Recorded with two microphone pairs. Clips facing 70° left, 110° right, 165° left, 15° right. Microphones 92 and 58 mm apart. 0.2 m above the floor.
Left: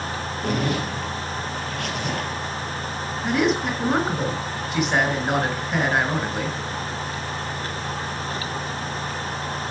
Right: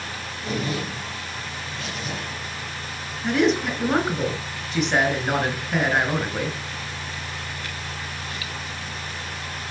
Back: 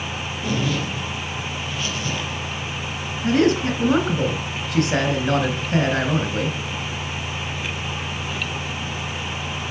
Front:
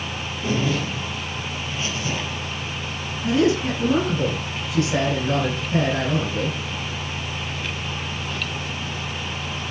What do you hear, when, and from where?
0.4 s a zipper: 50° left, 3 m
3.2 s a man speaking: 160° left, 3 m